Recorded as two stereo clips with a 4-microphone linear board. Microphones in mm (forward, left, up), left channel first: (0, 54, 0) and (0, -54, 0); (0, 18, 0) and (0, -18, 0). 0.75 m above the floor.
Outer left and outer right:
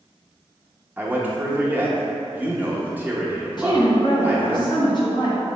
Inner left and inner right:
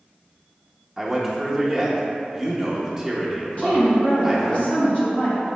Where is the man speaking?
15° right (ahead or behind), 0.7 m.